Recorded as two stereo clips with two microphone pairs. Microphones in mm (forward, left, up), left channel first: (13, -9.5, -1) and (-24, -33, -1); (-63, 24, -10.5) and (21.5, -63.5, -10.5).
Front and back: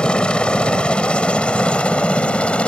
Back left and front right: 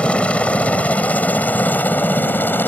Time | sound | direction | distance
0.0 | a helicopter | 65° left | ?